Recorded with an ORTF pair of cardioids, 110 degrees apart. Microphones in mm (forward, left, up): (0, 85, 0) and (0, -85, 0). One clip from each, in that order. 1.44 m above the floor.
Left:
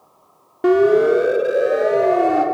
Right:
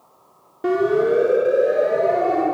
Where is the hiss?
No hiss in this recording.